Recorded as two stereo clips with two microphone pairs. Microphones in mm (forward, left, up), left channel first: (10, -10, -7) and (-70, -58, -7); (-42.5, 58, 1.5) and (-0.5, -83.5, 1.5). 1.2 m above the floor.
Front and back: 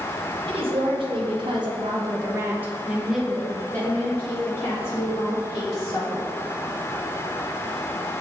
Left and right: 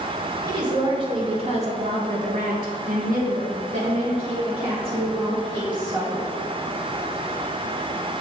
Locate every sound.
0.5 s a woman speaking: 135° right, 2.0 m; by 6.3 s 15° right, 3 m